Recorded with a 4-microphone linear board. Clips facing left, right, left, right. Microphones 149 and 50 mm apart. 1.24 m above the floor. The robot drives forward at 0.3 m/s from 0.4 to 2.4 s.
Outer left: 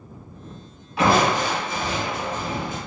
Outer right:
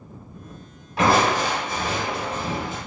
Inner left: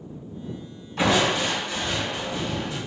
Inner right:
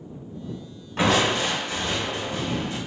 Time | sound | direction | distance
1.0 | crushing | 40° right (ahead or behind) | 2.0 m